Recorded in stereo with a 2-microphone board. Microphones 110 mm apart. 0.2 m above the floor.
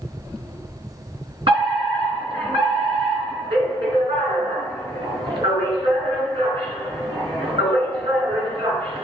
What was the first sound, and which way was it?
A fire alarm, 55° right (ahead or behind).